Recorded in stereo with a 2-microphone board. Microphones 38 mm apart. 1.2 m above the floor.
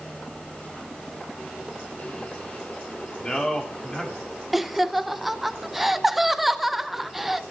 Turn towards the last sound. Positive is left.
turn(degrees=-5)  # may be behind; listen again after turning